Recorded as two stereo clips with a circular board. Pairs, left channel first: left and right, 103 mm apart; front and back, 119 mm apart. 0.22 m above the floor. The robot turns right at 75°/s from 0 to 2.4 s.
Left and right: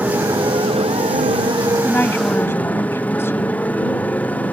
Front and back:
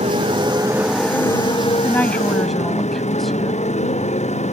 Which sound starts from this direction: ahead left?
A woman speaking, at 1.8 s.